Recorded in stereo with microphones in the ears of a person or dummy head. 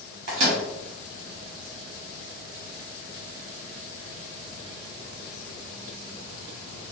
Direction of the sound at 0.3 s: 60° right (ahead or behind).